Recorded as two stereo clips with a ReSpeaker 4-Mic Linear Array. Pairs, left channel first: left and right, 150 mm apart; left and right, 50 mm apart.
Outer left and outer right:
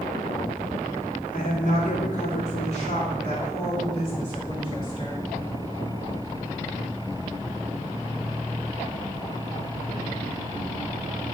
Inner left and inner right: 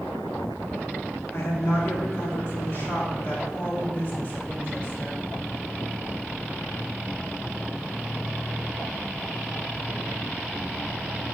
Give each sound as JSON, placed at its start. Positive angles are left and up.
{"t": 1.3, "sound": "a woman speaking", "side_deg": 55, "distance_m": 2.0}